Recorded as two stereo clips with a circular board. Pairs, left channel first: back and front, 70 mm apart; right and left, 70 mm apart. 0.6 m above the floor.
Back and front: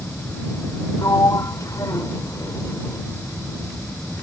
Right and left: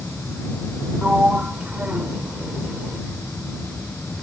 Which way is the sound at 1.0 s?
155° left.